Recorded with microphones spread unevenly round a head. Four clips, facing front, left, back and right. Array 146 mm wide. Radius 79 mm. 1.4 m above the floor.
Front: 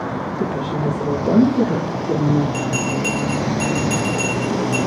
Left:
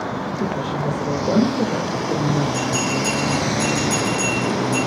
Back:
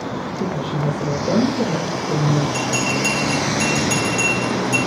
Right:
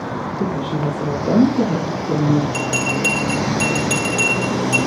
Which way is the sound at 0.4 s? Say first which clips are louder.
Right 3 dB, front 1 dB; 25° right.